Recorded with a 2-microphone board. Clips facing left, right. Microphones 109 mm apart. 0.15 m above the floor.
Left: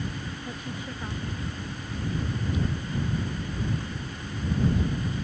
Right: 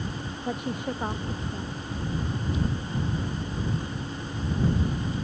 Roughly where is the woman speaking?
Right.